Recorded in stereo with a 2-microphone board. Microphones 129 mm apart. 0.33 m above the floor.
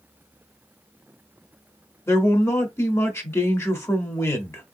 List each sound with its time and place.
2.1 s a man speaking: 20° left (ahead or behind), 0.8 m